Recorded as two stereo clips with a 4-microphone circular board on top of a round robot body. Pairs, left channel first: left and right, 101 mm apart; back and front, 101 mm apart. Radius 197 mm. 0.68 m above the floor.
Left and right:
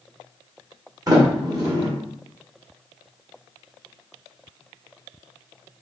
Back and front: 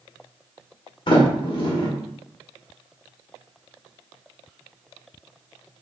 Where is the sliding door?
145° right, 1.7 m.